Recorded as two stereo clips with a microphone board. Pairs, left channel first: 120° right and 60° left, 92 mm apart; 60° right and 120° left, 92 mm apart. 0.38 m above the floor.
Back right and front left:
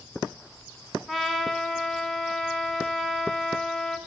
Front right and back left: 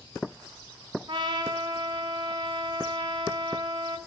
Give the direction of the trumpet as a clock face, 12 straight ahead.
7 o'clock.